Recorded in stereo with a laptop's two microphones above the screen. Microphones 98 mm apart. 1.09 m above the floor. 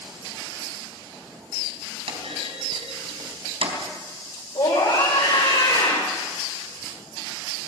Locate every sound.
2.1 s a clunk: 80° right, 4 m
4.5 s a scream: 60° left (ahead or behind), 4.5 m